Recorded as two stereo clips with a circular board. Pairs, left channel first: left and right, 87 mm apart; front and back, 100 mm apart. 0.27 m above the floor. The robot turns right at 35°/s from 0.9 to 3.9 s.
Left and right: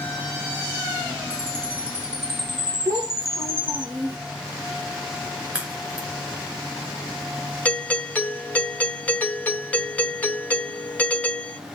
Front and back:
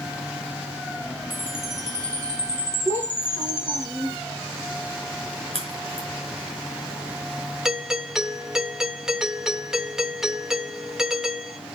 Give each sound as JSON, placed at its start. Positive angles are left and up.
{"t": 1.3, "sound": "a chime", "azimuth_deg": -105, "distance_m": 4.0}
{"t": 2.9, "sound": "a child speaking", "azimuth_deg": -70, "distance_m": 5.0}
{"t": 5.5, "sound": "a crack", "azimuth_deg": -15, "distance_m": 5.0}
{"t": 7.7, "sound": "a doorbell", "azimuth_deg": 105, "distance_m": 1.4}